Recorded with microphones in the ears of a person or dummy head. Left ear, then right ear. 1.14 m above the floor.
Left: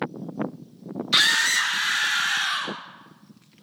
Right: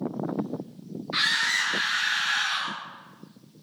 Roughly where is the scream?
Left.